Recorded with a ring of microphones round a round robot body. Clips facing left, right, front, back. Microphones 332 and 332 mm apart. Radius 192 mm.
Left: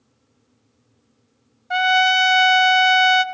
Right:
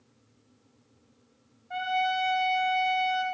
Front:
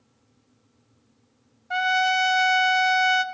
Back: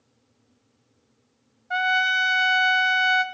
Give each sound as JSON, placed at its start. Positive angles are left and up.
{"t": 1.7, "sound": "a trumpet", "azimuth_deg": 80, "distance_m": 0.6}